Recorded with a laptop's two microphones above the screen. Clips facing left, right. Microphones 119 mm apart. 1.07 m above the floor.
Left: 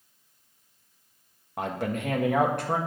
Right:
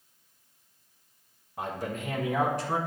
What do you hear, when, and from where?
1.6 s a man speaking: 70° left (ahead or behind), 1.5 m; by 2.8 s 55° left (ahead or behind), 1.6 m